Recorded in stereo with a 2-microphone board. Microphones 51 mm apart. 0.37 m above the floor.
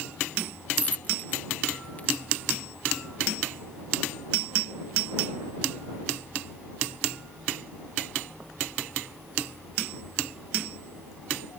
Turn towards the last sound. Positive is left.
turn(degrees=25)  # may be behind; listen again after turning